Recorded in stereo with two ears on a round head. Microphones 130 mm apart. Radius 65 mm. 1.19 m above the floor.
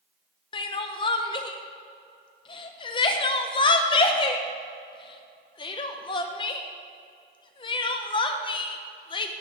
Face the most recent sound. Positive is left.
turn(degrees=35)  # may be behind; listen again after turning